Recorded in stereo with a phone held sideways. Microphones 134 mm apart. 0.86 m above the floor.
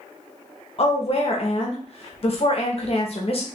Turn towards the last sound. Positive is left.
turn(degrees=50)  # may be behind; listen again after turning